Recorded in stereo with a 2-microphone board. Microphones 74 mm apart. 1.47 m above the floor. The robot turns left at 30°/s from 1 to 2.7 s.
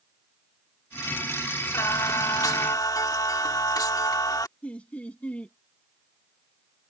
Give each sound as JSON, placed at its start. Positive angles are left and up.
{"t": 1.7, "sound": "singing", "side_deg": 50}
{"t": 4.6, "sound": "laughter", "side_deg": 15}